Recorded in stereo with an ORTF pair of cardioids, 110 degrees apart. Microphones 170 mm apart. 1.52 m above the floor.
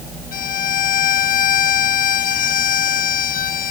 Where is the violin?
55° left.